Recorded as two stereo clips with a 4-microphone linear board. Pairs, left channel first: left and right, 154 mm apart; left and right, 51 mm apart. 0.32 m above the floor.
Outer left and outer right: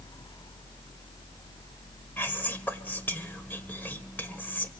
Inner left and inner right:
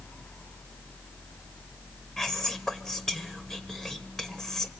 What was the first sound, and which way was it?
Whispering, 10° left (ahead or behind).